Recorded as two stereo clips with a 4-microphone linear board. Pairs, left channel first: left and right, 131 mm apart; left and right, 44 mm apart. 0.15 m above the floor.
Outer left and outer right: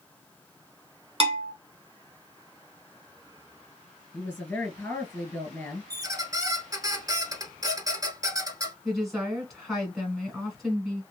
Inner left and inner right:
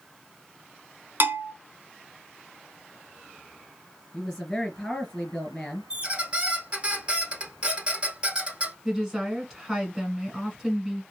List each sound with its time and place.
1.2 s a bell: 45° right (ahead or behind), 0.9 m
4.1 s a woman speaking: 15° left (ahead or behind), 2 m
5.9 s a squeak: 25° right (ahead or behind), 0.7 m
8.8 s a woman speaking: centre (ahead or behind), 1.2 m